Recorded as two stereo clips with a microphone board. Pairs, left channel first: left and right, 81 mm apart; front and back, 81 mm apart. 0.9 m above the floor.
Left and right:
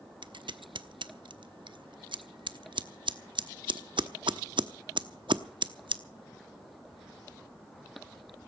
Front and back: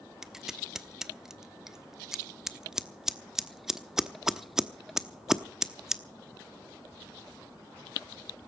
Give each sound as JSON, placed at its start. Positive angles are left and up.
{"t": 0.2, "sound": "scissors", "azimuth_deg": -95, "distance_m": 0.8}